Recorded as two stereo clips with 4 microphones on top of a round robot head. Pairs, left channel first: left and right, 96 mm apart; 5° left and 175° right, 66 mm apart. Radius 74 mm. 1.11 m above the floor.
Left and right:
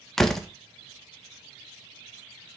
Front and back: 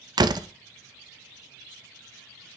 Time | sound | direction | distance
0.2 | a door slam | 175° left | 0.7 m